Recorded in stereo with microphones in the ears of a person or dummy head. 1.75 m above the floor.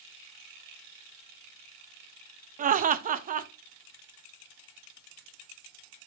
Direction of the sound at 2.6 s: 45° right (ahead or behind).